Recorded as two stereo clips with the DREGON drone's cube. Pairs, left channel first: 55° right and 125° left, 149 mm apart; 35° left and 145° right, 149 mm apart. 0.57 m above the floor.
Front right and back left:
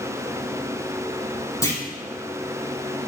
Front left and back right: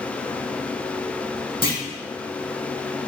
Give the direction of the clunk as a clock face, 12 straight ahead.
12 o'clock.